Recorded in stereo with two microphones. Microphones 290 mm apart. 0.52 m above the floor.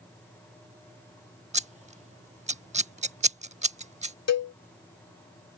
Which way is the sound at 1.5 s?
25° right (ahead or behind).